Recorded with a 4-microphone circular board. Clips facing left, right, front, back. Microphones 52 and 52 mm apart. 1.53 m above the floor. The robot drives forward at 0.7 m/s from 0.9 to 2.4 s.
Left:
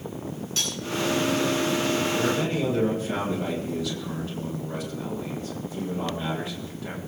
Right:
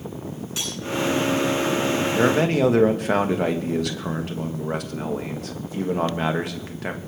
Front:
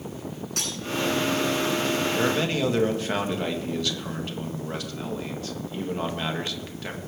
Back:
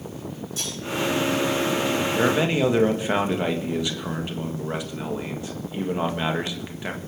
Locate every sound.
0.6 s cutlery clinking: 10° right, 9 m
2.1 s a man speaking: 100° right, 1.6 m; by 7.0 s 110° right, 1.6 m